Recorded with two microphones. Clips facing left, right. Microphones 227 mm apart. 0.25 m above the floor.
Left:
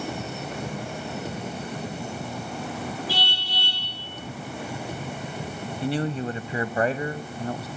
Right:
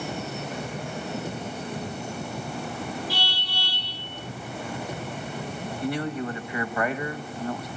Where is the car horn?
85° left, 8.5 m.